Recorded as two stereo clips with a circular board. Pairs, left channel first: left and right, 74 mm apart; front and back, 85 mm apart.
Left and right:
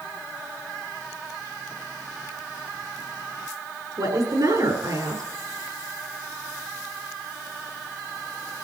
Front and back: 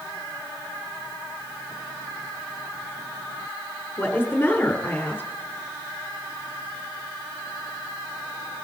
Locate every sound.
4.0 s a woman speaking: 70° right, 5.5 m